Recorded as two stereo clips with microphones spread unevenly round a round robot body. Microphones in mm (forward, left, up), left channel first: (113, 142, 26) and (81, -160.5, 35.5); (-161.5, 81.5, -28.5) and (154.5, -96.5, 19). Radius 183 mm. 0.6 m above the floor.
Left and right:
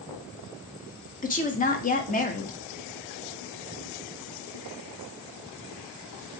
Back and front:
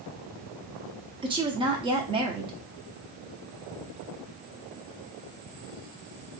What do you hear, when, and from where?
1.2 s a woman speaking: 50° left, 0.7 m